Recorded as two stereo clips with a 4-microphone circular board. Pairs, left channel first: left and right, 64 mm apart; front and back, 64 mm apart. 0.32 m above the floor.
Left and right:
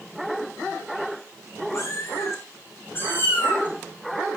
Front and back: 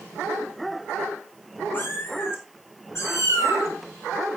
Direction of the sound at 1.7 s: 55° left.